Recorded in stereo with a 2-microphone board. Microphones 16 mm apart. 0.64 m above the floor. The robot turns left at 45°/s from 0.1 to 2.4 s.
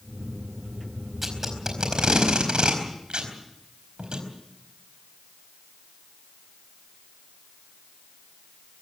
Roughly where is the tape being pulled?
Centre.